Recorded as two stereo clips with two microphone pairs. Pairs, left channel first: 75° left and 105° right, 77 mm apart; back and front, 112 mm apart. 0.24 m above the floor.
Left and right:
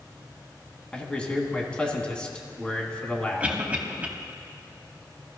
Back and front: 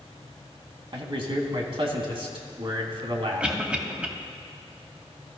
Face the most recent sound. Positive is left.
turn(degrees=-60)